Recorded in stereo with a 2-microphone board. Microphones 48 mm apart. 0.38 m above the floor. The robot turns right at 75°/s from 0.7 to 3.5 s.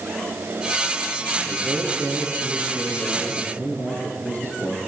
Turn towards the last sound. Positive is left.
turn(degrees=85)